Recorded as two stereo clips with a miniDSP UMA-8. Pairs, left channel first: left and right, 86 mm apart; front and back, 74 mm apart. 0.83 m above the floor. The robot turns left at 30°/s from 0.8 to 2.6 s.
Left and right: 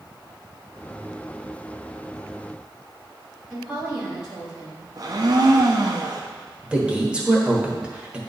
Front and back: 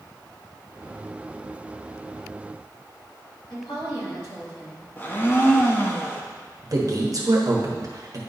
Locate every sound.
3.5 s a woman speaking: 10° right, 3 m
5.0 s a blender: 60° right, 0.8 m
6.6 s a man speaking: 160° right, 1.3 m